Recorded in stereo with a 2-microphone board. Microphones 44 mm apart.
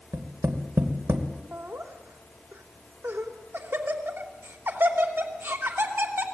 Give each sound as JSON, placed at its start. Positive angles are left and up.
{"t": 0.1, "sound": "tapping", "side_deg": -80, "distance_m": 2.5}
{"t": 1.5, "sound": "laughter", "side_deg": -60, "distance_m": 3.0}